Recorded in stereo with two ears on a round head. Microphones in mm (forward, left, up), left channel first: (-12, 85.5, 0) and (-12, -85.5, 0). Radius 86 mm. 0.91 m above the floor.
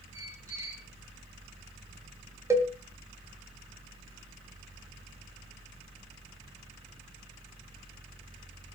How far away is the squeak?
About 4 m.